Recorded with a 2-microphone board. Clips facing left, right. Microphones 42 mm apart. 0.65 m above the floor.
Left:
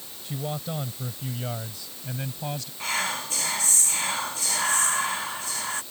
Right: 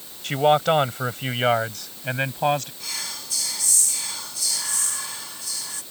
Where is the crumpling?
No crumpling in this recording.